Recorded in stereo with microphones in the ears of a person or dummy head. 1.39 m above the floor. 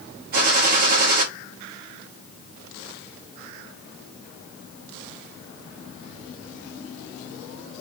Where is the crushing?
No crushing in this recording.